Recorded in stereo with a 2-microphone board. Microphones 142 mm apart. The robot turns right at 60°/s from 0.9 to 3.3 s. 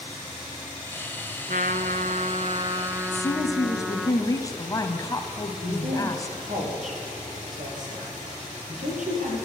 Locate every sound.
1.5 s a trumpet: 110° right, 0.7 m; by 4.1 s straight ahead, 0.7 m
3.1 s a woman speaking: 30° left (ahead or behind), 1.1 m; by 6.4 s 25° left (ahead or behind), 1.1 m
5.6 s a woman speaking: 65° right (ahead or behind), 5 m